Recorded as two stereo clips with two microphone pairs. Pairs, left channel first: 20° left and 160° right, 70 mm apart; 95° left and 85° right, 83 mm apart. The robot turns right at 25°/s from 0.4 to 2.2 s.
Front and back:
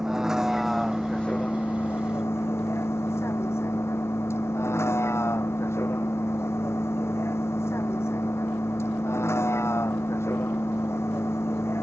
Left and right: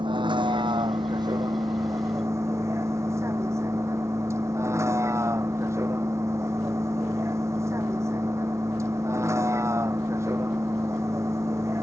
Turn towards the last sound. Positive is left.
turn(degrees=-30)